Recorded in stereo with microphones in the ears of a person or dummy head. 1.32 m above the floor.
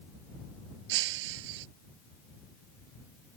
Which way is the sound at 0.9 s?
75° right (ahead or behind).